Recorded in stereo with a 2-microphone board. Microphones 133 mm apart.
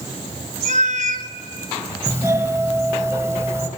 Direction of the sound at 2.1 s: 20° right (ahead or behind).